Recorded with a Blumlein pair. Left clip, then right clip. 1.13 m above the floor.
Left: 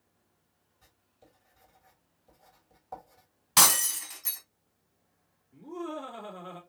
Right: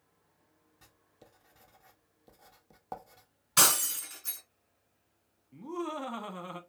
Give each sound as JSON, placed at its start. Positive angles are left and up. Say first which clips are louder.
{"t": 0.8, "sound": "writing", "louder": "right 2 dB", "azimuth_deg": -50, "distance_m": 1.3}
{"t": 3.6, "sound": "breaking glass", "louder": "left 3 dB", "azimuth_deg": 35, "distance_m": 2.5}
{"t": 5.5, "sound": "laughter", "louder": "right 1 dB", "azimuth_deg": -45, "distance_m": 1.9}